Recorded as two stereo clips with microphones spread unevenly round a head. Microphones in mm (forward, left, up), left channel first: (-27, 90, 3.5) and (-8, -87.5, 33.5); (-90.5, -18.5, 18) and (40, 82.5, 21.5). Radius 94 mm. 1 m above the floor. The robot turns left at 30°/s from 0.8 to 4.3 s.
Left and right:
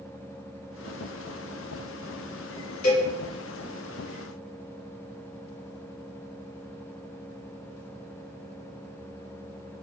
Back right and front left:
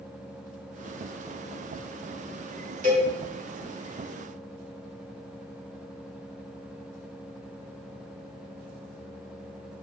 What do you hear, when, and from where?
2.8 s a cowbell: 80° left, 0.9 m; by 3.1 s 75° left, 0.9 m